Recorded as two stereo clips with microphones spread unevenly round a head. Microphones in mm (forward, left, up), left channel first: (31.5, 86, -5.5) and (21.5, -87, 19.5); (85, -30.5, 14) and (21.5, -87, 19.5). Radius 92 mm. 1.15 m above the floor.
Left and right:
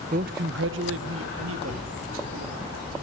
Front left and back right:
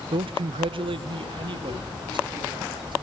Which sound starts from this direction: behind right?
A man speaking, at 0.1 s.